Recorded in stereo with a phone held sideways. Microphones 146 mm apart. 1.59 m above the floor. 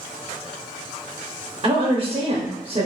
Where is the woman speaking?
45° right (ahead or behind), 0.6 m.